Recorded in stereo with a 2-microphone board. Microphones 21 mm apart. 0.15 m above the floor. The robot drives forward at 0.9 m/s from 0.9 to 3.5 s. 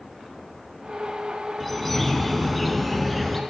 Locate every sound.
1.6 s a bird: 5° left (ahead or behind), 1.0 m